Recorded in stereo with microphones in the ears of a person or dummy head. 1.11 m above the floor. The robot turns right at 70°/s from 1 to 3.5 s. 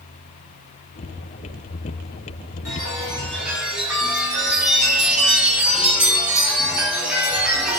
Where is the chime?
125° left, 3 m; by 7.8 s 175° right, 3 m.